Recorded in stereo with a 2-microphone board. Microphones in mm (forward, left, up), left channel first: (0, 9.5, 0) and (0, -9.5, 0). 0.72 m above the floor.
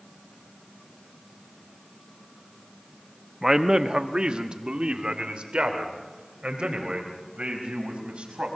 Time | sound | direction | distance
3.4 | a man speaking | 25° right (ahead or behind) | 0.8 m